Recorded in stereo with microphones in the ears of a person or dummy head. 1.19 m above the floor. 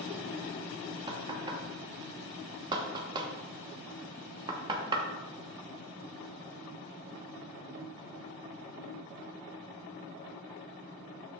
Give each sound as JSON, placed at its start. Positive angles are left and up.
{"t": 1.1, "sound": "knocking", "side_deg": -25, "distance_m": 0.9}